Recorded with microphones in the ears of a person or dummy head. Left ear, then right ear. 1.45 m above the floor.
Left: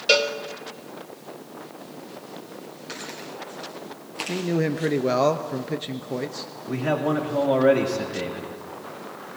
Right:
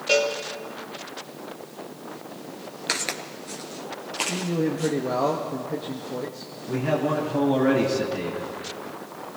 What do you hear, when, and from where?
0.1 s a cowbell: 35° left (ahead or behind), 1.0 m
2.9 s footsteps: 35° right (ahead or behind), 1.7 m; by 4.9 s 10° left (ahead or behind), 3 m
4.3 s a man speaking: 65° left (ahead or behind), 0.8 m
6.7 s a man speaking: 45° left (ahead or behind), 2.5 m